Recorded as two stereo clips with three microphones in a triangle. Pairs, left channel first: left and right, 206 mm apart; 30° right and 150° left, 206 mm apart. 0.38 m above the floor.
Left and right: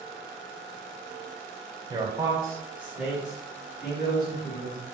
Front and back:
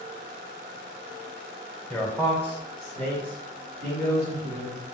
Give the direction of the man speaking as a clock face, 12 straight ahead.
4 o'clock.